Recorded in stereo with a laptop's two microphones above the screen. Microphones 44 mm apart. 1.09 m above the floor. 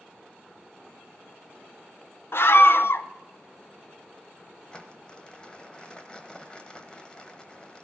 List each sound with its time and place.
2.3 s a scream: 60° left (ahead or behind), 0.7 m
4.7 s crumpling: 20° left (ahead or behind), 0.9 m